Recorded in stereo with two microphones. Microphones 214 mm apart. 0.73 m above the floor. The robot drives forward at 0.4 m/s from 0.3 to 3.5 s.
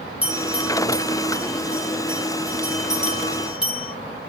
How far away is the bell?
About 1.9 m.